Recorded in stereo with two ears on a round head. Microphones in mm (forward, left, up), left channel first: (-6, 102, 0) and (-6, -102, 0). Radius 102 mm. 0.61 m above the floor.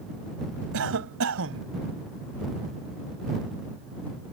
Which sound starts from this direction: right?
A cough, at 0.7 s.